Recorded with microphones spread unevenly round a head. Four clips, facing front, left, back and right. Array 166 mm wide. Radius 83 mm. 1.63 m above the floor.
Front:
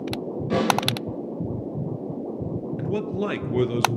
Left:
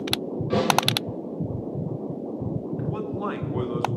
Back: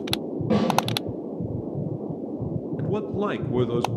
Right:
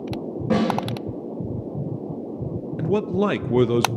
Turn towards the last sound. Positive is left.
turn(degrees=-90)